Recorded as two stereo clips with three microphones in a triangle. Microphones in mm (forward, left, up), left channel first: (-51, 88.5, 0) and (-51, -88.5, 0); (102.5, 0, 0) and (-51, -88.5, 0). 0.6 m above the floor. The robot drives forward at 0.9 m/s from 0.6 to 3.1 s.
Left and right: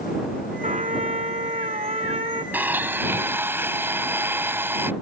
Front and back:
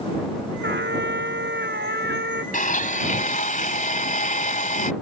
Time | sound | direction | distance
0.6 | a trumpet | 140° right | ?
2.5 | a blender | 10° right | ?